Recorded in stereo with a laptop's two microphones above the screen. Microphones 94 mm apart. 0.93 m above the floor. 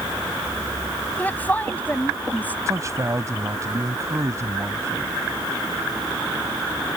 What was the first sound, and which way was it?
A woman speaking, 20° left (ahead or behind).